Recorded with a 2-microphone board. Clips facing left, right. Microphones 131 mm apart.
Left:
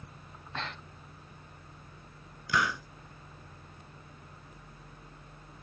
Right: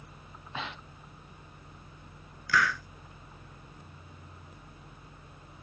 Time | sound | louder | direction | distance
0.3 | breathing | right 1 dB | 5° right (ahead or behind) | ?
2.5 | a hiss | right 2 dB | 20° left (ahead or behind) | ?